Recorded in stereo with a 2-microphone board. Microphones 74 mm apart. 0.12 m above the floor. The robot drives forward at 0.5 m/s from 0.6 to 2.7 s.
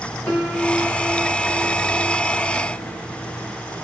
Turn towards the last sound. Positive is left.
turn(degrees=20)  # may be behind; listen again after turning